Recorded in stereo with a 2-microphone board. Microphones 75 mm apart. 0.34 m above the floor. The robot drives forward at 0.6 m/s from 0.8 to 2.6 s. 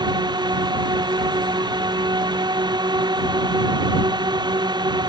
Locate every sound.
0.0 s a drone: 70° right (ahead or behind)